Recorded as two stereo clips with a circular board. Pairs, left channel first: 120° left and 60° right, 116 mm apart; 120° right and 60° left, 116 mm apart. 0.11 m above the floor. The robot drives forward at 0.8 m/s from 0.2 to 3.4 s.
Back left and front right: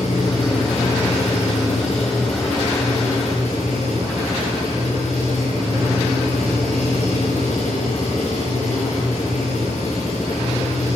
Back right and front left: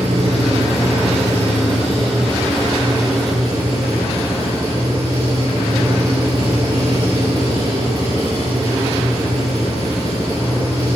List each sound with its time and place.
0.0 s an engine running: 100° left, 8.5 m; by 11.0 s 115° left, 9 m